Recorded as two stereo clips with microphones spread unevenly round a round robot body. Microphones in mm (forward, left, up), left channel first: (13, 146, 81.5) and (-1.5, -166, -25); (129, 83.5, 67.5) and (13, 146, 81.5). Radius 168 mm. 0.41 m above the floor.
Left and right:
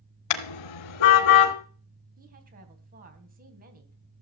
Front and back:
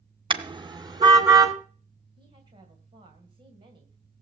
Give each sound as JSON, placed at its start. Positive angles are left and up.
{"t": 0.3, "sound": "a car horn", "azimuth_deg": 100, "distance_m": 2.5}
{"t": 2.2, "sound": "a woman speaking", "azimuth_deg": -145, "distance_m": 2.5}